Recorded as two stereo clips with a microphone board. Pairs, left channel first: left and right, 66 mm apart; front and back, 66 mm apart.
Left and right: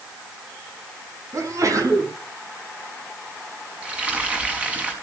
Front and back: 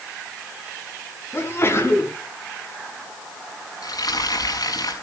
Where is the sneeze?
55° right, 5.5 m.